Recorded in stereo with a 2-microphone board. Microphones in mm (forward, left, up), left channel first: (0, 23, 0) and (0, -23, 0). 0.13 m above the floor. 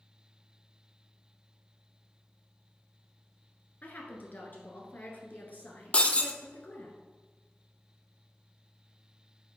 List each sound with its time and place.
3.8 s a woman speaking: 40° left (ahead or behind), 1.5 m
5.9 s breaking glass: 25° left (ahead or behind), 0.6 m